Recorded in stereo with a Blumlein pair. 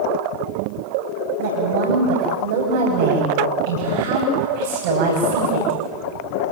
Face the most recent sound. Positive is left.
turn(degrees=-55)